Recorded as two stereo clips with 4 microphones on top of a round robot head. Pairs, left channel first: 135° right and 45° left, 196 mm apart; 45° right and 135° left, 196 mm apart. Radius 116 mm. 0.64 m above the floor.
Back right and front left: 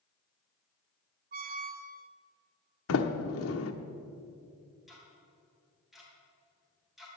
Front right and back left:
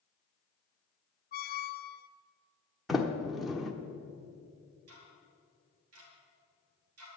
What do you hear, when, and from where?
1.3 s a squeak: straight ahead, 0.6 m
2.9 s a sliding door: 135° right, 1.0 m
4.9 s ticking: 135° left, 3 m